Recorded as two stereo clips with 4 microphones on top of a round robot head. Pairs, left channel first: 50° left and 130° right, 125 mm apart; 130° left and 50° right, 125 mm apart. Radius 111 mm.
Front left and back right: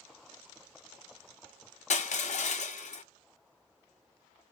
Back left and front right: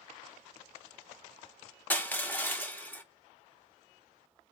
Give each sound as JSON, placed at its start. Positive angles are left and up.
{"t": 1.9, "sound": "crushing", "azimuth_deg": 55, "distance_m": 0.8}